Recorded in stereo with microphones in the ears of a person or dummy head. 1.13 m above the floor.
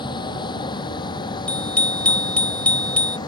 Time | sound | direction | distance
0.0 | a vehicle | 25° left (ahead or behind) | ?
1.5 | a bicycle bell | 10° left (ahead or behind) | ?